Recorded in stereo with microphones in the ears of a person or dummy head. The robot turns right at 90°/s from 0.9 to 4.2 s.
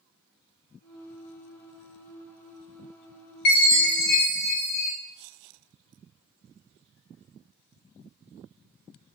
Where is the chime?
60° left, 1.0 m; by 4.9 s 125° left, 1.0 m.